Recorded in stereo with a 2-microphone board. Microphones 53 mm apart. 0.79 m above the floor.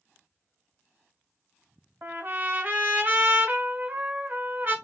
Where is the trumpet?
40° right (ahead or behind), 0.7 m.